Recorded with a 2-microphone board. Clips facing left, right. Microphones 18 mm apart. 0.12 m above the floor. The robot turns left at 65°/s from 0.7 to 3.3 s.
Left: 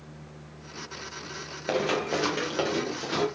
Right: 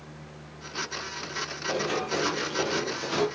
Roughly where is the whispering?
I don't hear whispering.